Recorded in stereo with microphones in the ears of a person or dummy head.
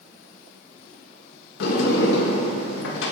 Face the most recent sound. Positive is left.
turn(degrees=70)  # may be behind; listen again after turning